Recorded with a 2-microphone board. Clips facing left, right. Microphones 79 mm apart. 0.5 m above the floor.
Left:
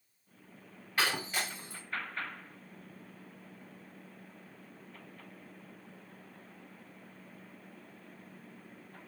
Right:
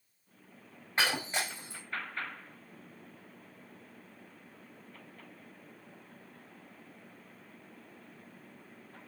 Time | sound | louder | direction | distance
1.0 | breaking glass | right 1 dB | 25° right (ahead or behind) | 6 m